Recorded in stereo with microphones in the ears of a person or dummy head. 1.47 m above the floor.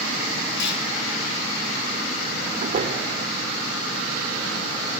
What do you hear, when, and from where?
0.6 s a clunk: 70° left (ahead or behind), 6.5 m
2.6 s a door slam: 35° right (ahead or behind), 3.5 m